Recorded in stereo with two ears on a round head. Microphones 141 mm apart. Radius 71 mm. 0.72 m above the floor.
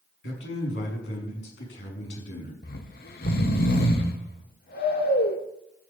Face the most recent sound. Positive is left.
turn(degrees=65)  # may be behind; listen again after turning